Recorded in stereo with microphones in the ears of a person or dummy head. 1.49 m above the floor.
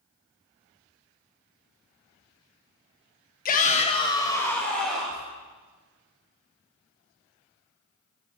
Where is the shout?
45° left (ahead or behind), 1.2 m; by 5.3 s 10° right (ahead or behind), 2.0 m.